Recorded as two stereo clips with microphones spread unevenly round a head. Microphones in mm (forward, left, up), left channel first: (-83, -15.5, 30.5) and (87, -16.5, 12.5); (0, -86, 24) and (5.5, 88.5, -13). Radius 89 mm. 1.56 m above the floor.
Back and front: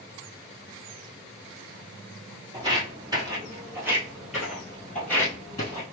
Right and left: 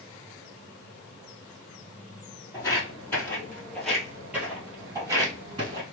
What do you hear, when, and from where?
2.5 s footsteps: 55° right, 1.9 m; by 5.8 s 145° left, 1.7 m